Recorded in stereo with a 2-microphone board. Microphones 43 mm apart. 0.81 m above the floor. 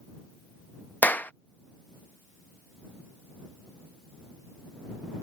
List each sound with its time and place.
1.0 s a clap: 45° left (ahead or behind)